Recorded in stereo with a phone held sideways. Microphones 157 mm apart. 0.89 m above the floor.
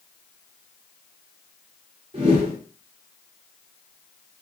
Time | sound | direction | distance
2.1 | a whoosh | 40° right (ahead or behind) | 1.4 m